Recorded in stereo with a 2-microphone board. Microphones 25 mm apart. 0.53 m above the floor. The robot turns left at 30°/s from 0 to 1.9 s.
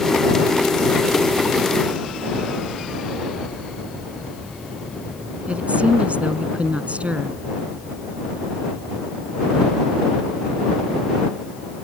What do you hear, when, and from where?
5.5 s a woman speaking: 55° right (ahead or behind)